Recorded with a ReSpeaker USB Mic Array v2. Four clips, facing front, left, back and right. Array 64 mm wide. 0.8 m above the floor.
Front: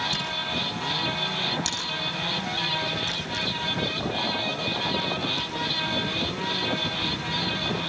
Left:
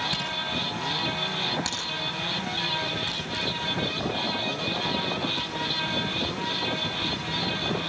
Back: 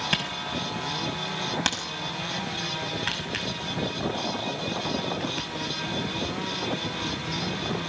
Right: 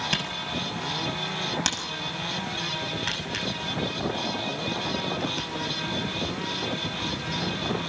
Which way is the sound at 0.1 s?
160° right.